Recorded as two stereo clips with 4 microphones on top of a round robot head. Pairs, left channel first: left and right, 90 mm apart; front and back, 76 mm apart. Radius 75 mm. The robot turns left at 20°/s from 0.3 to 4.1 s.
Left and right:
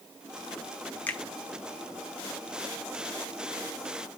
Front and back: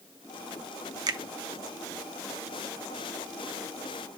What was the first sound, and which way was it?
A finger snap, 160° left.